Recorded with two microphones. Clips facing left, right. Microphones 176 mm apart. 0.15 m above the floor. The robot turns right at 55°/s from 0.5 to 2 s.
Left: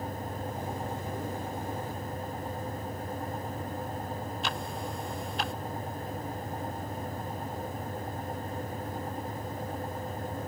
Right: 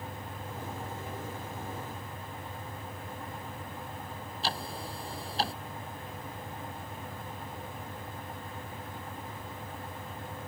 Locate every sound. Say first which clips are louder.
4.4 s ticking: left 2 dB; 35° right (ahead or behind)